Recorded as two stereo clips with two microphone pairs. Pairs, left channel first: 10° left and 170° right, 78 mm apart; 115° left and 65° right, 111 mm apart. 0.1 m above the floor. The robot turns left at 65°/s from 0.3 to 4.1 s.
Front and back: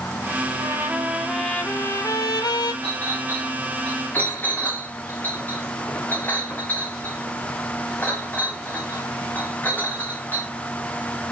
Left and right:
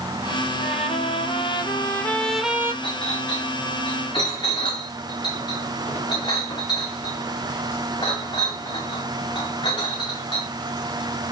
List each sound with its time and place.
0.6 s a trumpet: 140° left, 1.3 m; by 2.7 s straight ahead, 1.3 m
2.8 s a clink: 155° left, 5.5 m; by 10.5 s 70° left, 5.5 m